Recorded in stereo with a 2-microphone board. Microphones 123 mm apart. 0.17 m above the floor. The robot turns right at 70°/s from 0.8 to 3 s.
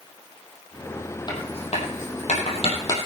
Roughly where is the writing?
Left.